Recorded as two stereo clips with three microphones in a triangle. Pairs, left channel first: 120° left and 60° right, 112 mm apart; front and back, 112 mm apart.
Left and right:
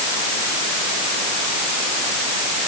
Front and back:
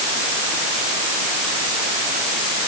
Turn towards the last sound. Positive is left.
No sound to turn to.